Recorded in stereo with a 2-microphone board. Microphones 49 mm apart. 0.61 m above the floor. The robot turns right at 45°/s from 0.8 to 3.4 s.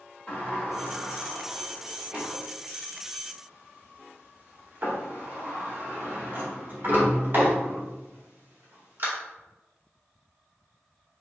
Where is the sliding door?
30° left (ahead or behind), 1.8 m; by 9.1 s 50° right (ahead or behind), 1.8 m.